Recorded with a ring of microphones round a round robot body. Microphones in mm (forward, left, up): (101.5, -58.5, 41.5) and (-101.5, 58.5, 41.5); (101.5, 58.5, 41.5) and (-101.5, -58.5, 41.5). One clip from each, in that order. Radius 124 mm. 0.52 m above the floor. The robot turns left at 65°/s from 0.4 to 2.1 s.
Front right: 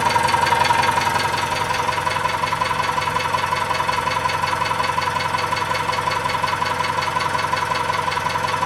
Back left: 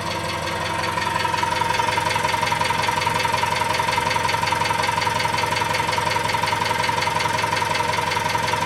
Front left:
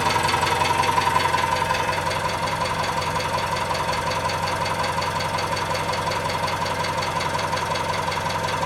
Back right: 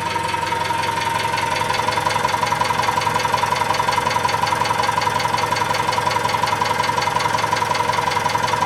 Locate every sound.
0.0 s an engine running: 40° right, 1.4 m; by 8.7 s 150° right, 1.4 m